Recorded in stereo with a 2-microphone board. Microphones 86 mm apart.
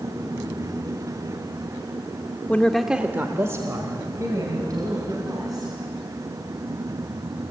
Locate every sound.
2.5 s a woman speaking: 20° left (ahead or behind), 1.0 m; by 5.7 s 45° right (ahead or behind), 5 m